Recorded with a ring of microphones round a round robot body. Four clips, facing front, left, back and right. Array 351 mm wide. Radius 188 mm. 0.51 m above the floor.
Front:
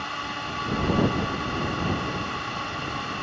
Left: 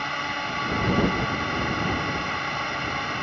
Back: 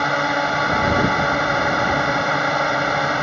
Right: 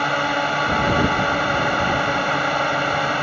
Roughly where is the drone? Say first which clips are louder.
Right 9 dB, back 13 dB; behind right.